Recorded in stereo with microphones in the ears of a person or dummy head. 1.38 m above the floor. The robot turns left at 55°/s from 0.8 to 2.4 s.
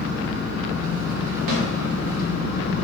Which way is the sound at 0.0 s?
150° right.